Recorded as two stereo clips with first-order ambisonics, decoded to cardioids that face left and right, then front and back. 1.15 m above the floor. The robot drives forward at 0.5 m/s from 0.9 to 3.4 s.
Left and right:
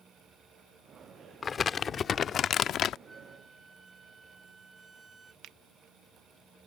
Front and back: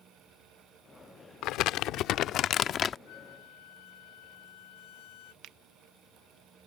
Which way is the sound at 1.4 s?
20° left.